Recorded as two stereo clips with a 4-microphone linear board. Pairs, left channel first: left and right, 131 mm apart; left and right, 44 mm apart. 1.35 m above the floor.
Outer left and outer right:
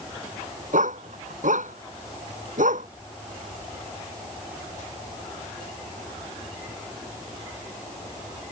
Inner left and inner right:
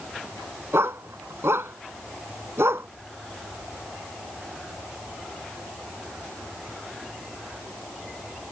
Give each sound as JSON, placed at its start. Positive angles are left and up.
{"t": 0.7, "sound": "a dog barking", "side_deg": -75}